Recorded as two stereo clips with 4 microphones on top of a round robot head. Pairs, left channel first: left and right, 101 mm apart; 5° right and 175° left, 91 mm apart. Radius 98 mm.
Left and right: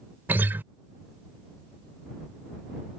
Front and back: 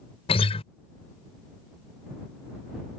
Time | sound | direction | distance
0.3 | a guitar | 15° right | ?